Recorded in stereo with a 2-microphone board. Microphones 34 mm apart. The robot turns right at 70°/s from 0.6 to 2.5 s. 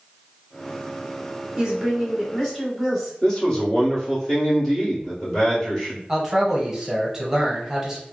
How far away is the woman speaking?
About 1.2 m.